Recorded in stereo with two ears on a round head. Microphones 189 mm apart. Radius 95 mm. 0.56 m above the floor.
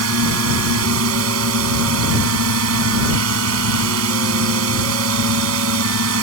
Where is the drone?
75° right (ahead or behind).